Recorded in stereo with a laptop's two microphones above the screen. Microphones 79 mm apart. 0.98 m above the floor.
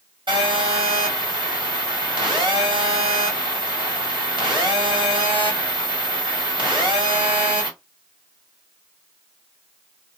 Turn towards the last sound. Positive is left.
turn(degrees=-80)